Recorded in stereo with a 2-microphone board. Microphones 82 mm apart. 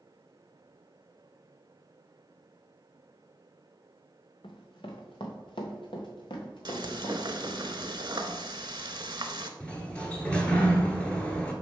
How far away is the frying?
About 0.7 m.